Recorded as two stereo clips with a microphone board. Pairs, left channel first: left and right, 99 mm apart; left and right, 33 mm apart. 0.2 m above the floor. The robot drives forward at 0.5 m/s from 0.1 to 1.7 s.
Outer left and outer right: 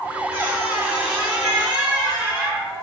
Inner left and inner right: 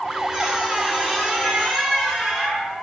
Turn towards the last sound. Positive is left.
turn(degrees=-10)  # may be behind; listen again after turning